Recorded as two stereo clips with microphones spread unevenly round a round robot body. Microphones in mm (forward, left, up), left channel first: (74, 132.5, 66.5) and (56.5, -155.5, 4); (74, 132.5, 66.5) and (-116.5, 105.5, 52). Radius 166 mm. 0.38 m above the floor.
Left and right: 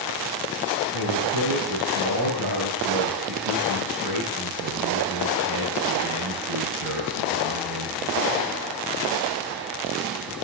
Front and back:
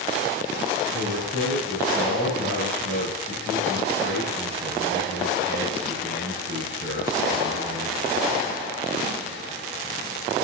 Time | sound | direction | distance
0.9 | a man speaking | 125° right | 6.5 m